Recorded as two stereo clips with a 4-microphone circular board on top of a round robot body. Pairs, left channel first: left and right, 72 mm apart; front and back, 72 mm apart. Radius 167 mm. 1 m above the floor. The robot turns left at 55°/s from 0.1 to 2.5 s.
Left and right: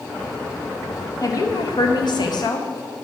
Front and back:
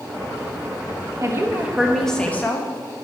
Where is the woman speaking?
135° left, 1.4 m; by 2.7 s 60° left, 1.4 m.